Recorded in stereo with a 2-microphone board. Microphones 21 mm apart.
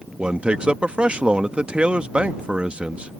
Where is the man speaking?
60° right (ahead or behind).